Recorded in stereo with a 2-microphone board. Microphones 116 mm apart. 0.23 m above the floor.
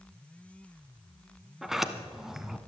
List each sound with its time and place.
1.6 s a sliding door: 5° right (ahead or behind), 0.8 m